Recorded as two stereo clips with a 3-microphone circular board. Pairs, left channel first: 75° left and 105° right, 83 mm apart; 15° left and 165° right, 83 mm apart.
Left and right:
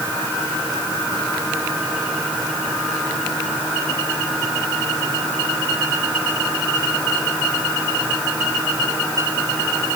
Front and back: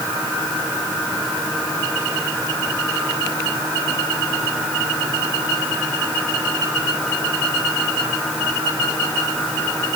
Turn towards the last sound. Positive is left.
No sound to turn to.